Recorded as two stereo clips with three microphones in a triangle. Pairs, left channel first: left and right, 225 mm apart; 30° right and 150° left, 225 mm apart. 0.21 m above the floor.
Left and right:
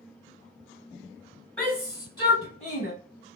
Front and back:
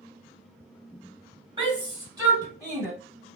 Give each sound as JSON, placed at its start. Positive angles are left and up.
{"t": 1.6, "sound": "a shout", "azimuth_deg": 170, "distance_m": 1.2}